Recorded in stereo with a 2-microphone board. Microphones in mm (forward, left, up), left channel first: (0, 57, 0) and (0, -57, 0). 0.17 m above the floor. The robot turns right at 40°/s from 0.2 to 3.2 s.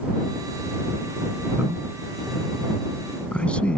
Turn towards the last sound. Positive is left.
turn(degrees=10)  # may be behind; listen again after turning